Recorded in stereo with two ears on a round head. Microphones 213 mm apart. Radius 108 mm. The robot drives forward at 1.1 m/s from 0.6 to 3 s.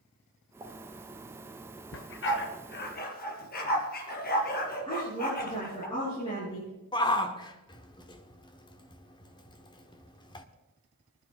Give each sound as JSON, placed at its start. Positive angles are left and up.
{"t": 0.6, "sound": "a pop", "side_deg": -20, "distance_m": 3.5}
{"t": 1.9, "sound": "a dog barking", "side_deg": 60, "distance_m": 2.5}
{"t": 4.9, "sound": "a woman speaking", "side_deg": 25, "distance_m": 8.0}
{"t": 6.9, "sound": "a shout", "side_deg": 20, "distance_m": 1.2}